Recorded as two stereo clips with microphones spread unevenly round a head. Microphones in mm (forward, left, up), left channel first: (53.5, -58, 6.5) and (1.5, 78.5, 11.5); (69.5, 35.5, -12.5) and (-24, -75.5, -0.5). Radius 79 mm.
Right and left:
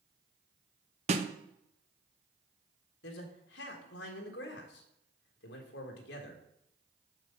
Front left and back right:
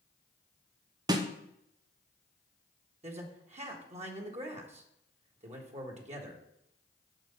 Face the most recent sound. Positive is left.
turn(degrees=-85)